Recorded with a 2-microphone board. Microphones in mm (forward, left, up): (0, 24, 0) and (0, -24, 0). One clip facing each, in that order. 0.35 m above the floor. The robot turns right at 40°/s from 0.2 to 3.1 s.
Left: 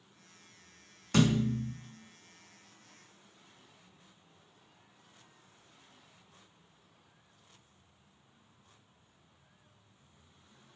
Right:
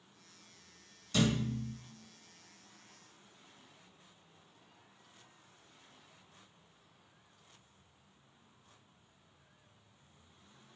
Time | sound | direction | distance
1.1 | a thud | 55° left (ahead or behind) | 0.6 m